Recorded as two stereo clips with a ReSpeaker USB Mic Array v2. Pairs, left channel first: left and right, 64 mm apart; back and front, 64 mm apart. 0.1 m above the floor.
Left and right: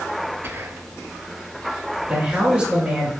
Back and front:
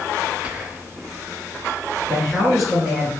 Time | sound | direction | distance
0.4 | whispering | 60° right | 1.5 m
2.1 | a man speaking | 75° right | 1.6 m